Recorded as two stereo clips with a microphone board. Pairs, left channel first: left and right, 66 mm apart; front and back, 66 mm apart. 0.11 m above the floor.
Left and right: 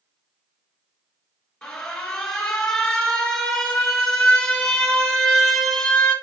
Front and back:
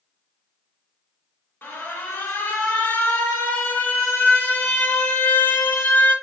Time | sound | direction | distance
1.6 | an alarm | 20° left | 1.2 m